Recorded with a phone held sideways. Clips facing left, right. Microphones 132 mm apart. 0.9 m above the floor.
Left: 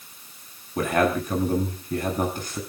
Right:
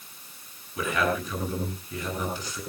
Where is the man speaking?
55° left (ahead or behind), 9 m.